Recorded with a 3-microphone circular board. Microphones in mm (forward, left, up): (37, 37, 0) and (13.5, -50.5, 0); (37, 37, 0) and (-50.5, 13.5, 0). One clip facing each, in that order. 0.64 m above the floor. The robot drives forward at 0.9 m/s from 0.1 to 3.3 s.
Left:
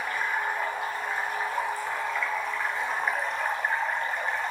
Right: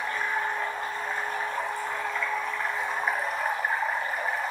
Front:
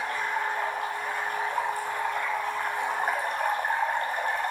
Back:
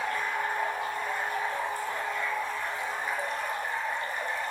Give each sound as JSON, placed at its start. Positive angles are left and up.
{"t": 0.0, "sound": "running water", "azimuth_deg": -10, "distance_m": 5.5}